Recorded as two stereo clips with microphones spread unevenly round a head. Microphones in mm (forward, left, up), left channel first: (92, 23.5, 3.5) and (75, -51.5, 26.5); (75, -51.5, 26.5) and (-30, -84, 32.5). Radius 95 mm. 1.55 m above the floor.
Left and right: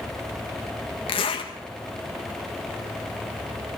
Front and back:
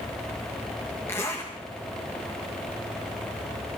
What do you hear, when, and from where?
1.1 s a zipper: 95° left, 1.3 m